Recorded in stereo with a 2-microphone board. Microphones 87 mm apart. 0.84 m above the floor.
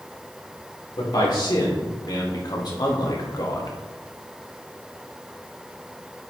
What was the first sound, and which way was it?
A man speaking, 60° left (ahead or behind).